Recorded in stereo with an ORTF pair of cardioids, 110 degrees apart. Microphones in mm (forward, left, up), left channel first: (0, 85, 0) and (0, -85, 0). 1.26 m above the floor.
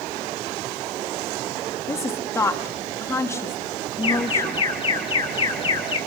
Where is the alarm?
30° left, 9 m.